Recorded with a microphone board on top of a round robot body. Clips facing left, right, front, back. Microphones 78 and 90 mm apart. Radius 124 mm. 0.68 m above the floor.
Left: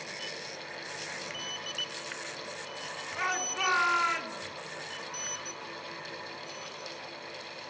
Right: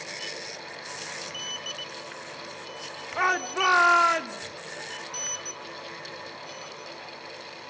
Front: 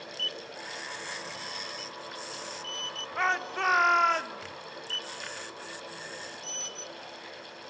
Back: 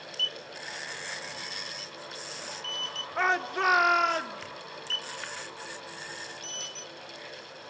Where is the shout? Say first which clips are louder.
Right 8 dB, back 2 dB; 105° right, 2.0 m; by 4.4 s 95° right, 3 m.